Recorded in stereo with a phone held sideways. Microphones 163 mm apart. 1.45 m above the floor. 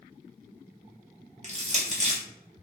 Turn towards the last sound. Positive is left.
turn(degrees=-45)  # may be behind; listen again after turning